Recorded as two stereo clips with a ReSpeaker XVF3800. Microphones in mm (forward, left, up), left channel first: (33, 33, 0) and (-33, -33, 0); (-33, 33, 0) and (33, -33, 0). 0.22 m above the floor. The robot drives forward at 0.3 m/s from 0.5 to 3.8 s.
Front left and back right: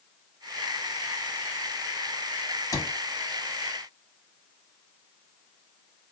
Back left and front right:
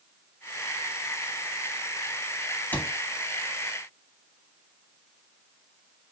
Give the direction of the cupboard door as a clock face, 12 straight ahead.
10 o'clock.